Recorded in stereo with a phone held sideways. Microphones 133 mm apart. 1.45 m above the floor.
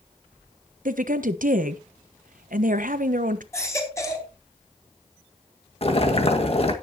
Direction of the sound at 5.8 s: 45° left (ahead or behind).